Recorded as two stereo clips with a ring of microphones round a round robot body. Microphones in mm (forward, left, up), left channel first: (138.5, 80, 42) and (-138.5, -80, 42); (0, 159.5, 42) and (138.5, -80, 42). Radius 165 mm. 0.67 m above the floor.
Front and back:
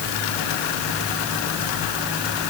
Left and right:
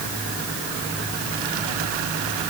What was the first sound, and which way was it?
Only background noise.